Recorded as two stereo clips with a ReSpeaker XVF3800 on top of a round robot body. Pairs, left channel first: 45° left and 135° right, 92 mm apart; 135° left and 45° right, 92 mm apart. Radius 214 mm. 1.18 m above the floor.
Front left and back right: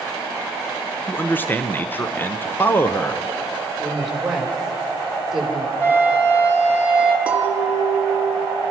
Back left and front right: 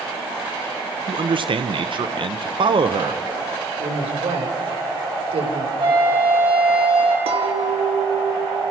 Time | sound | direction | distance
1.1 | a man speaking | 25° right | 1.1 m
3.8 | a woman speaking | 50° right | 4.5 m
5.8 | a flute | 25° right | 4 m
7.3 | a clink | 60° right | 1.6 m